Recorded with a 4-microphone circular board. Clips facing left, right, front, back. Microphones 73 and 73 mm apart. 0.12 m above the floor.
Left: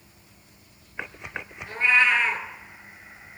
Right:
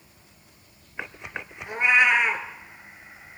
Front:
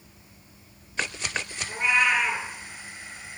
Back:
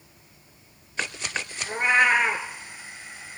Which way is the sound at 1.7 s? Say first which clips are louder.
Right 1 dB, back 3 dB; 155° right.